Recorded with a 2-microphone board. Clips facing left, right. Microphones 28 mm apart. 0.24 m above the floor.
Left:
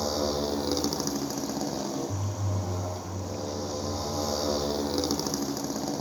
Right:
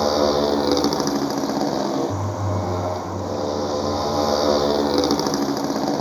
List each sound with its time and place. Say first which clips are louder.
0.0 s a motorcycle: right 10 dB; 35° right (ahead or behind)